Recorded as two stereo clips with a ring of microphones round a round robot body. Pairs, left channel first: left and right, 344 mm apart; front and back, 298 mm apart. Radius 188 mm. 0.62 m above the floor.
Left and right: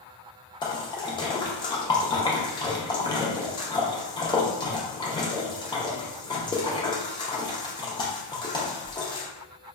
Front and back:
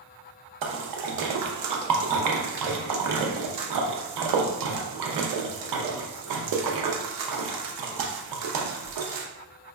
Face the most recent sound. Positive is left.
turn(degrees=170)